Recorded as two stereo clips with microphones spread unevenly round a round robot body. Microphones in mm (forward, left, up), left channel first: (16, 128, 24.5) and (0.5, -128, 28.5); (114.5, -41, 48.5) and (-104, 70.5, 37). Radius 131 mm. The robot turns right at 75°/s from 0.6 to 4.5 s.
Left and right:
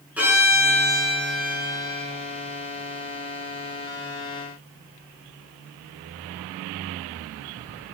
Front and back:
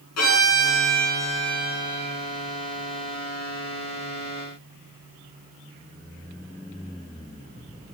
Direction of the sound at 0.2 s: 10° right.